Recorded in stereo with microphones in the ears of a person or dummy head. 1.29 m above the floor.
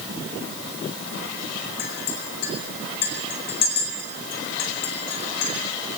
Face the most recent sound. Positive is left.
turn(degrees=55)  # may be behind; listen again after turning